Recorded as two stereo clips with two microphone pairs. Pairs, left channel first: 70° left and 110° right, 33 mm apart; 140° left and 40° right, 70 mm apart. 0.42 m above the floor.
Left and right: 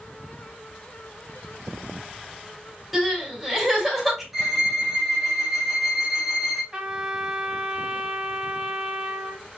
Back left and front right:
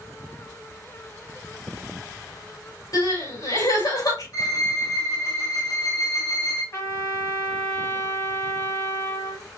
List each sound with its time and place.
2.9 s crying: 160° left, 3.5 m
4.3 s a violin: 170° left, 3 m
6.7 s a trumpet: straight behind, 1.9 m